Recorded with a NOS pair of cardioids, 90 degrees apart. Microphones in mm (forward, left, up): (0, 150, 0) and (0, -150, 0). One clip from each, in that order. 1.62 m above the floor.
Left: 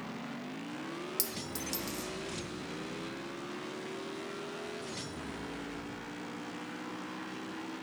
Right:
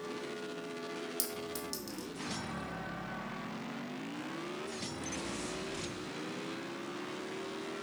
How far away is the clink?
About 1.9 m.